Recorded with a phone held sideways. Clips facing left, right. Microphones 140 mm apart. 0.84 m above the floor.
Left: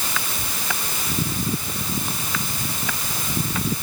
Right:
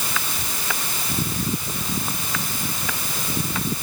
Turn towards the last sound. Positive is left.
No sound to turn to.